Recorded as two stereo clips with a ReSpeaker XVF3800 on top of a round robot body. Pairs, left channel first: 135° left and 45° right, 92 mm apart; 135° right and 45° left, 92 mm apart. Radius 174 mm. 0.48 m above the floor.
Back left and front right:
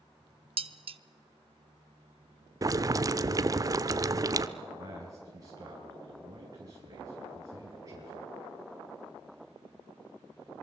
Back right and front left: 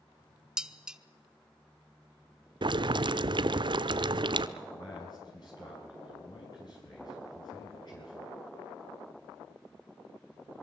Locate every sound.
0.6 s dishes clattering: 40° right, 0.9 m
2.6 s boiling: 10° left, 0.7 m
4.6 s a man speaking: 95° right, 6 m